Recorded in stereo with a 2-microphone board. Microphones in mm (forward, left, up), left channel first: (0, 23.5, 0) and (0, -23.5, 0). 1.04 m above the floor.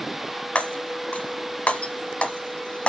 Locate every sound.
0.6 s breaking glass: 30° left (ahead or behind), 1.4 m